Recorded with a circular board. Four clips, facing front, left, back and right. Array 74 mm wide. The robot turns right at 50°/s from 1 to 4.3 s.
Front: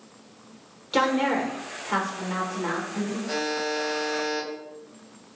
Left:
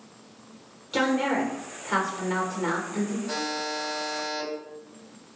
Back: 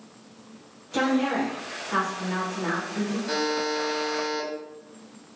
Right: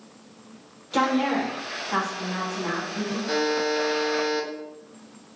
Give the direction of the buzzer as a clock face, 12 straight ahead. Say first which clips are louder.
Right 7 dB, back 2 dB; 4 o'clock.